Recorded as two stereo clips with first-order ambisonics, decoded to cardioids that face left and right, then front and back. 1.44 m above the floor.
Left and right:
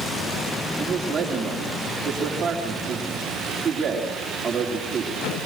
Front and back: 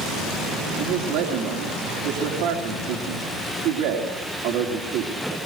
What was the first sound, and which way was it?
A man speaking, 160° right.